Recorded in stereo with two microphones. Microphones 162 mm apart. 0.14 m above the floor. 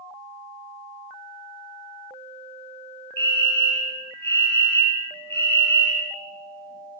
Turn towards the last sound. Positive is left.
turn(degrees=15)  # may be behind; listen again after turning